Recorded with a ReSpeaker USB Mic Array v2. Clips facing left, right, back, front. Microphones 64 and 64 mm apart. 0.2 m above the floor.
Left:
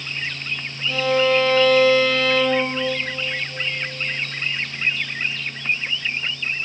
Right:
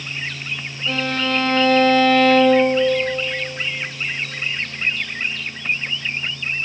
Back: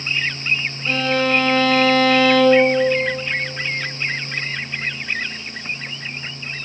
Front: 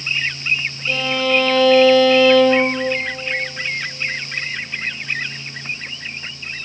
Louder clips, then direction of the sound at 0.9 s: Left 4 dB, back 1 dB; 140° right.